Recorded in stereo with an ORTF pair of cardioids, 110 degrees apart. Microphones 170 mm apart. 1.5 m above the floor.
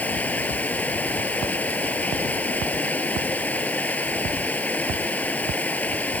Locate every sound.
0.0 s running water: 10° left